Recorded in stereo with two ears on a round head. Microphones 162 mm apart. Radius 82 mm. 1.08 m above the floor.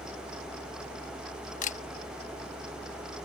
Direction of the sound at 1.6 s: 45° left (ahead or behind).